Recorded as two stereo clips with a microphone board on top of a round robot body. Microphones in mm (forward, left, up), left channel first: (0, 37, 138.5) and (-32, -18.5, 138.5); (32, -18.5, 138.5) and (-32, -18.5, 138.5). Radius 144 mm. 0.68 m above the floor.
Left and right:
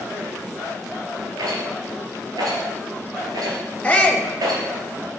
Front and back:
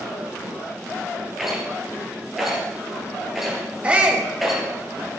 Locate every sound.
1.4 s a rattle: 95° right, 2.5 m
3.8 s a shout: 120° left, 1.2 m